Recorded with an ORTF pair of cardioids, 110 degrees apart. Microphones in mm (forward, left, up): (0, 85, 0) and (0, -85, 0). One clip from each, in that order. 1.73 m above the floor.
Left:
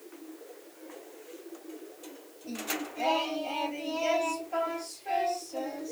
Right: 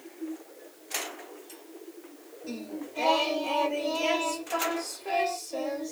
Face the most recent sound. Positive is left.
turn(degrees=-60)